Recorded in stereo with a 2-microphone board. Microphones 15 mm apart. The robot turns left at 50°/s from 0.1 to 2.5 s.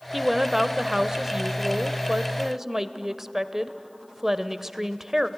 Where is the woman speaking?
15° right, 1.0 m; by 5.3 s 135° right, 1.0 m.